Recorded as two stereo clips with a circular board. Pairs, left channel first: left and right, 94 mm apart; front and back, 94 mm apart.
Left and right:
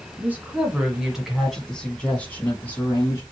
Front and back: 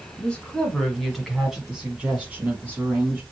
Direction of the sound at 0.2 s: 60° right.